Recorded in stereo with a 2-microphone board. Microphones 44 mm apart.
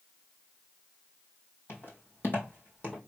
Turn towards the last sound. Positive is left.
turn(degrees=35)  # may be behind; listen again after turning